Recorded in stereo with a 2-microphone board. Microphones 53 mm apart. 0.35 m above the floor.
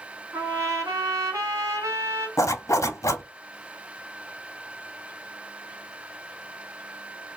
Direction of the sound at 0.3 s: 80° right.